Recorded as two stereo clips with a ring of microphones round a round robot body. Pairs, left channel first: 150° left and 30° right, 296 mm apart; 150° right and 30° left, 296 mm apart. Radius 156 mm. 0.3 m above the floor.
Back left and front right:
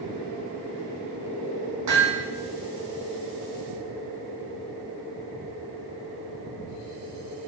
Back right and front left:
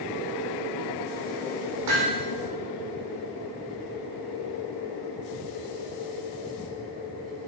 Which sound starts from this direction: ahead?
Hammering, at 1.9 s.